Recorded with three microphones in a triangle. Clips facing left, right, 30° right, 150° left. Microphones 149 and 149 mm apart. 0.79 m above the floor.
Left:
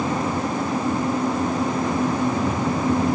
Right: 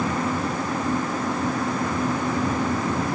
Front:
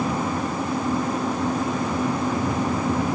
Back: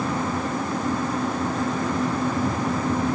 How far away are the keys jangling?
I don't hear keys jangling.